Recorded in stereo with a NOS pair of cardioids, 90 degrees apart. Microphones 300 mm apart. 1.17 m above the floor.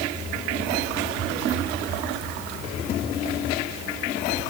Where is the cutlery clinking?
I don't hear cutlery clinking.